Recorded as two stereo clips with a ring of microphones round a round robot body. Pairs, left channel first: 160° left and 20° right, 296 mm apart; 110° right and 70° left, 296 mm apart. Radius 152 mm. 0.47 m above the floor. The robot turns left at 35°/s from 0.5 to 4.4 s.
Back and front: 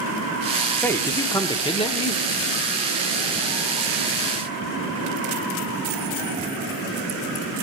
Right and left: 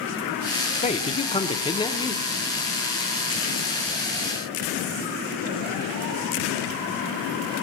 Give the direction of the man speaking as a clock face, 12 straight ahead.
4 o'clock.